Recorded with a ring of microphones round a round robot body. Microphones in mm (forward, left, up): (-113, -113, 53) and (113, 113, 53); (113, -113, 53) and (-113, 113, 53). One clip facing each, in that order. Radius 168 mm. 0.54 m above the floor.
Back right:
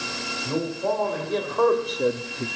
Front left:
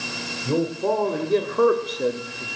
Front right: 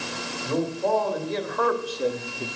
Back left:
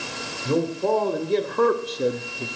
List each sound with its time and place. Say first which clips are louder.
0.5 s a man speaking: front left 4 dB, back left 3 dB; 85° left, 2.5 m; by 2.5 s 130° right, 1.0 m